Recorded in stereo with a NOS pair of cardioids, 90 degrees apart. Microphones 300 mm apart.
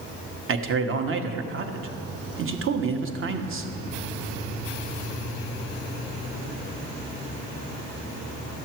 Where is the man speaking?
45° right, 1.1 m.